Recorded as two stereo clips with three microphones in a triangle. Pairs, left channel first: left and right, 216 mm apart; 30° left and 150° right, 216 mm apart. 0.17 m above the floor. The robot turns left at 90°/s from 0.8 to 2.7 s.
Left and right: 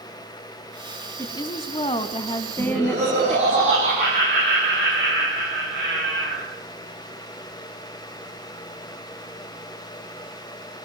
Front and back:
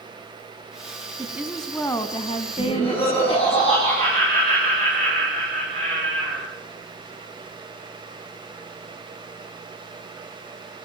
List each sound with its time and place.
1.2 s a woman speaking: 150° left, 1.0 m; by 3.6 s 15° left, 1.0 m
2.6 s laughter: 20° right, 7.5 m; by 6.4 s 35° right, 7.5 m